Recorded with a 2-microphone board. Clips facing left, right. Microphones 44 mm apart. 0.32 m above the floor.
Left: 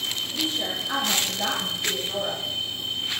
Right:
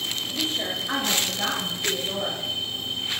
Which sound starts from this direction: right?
A woman speaking, at 0.3 s.